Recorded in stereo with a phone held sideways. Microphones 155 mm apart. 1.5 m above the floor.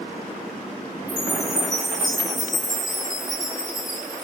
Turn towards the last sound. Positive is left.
turn(degrees=25)  # may be behind; listen again after turning